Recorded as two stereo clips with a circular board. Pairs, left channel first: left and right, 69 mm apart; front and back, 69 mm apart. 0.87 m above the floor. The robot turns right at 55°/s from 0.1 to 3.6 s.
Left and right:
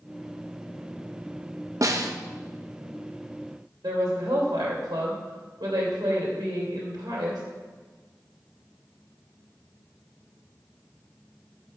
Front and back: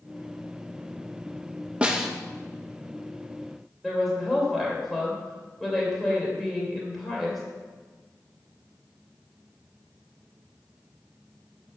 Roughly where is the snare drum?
Right.